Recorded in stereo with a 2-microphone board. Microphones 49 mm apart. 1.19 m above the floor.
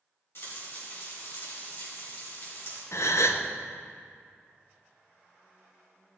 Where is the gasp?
65° left (ahead or behind), 0.6 m.